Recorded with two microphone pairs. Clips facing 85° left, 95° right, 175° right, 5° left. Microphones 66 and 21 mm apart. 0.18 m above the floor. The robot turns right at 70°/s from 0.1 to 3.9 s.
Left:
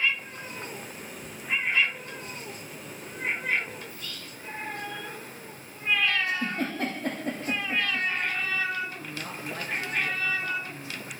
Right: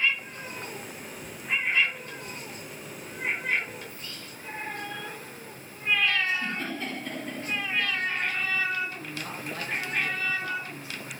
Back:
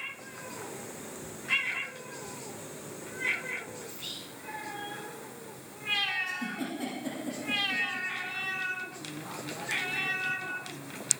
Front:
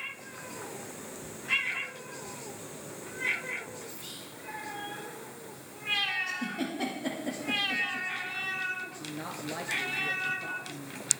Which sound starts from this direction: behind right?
Whispering, at 3.9 s.